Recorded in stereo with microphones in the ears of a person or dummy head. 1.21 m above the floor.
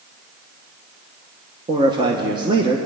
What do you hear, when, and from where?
1.7 s a man speaking: 25° right (ahead or behind), 1.1 m